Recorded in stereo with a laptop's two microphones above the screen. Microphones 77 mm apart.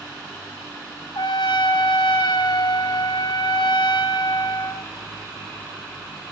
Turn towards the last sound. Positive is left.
turn(degrees=70)  # may be behind; listen again after turning